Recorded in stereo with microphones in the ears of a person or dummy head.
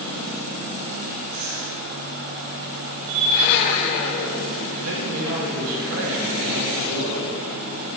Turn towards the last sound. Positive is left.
turn(degrees=-85)